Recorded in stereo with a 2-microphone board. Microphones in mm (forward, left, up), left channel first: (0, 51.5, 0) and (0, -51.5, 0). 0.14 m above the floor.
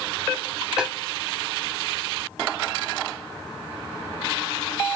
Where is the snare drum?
5° right (ahead or behind), 7.5 m.